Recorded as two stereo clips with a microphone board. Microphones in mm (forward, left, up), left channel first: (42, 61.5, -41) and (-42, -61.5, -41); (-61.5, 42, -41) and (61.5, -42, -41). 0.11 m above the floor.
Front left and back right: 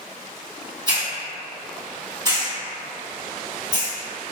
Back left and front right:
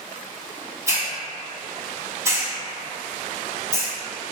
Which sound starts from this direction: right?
A hiss, at 0.9 s.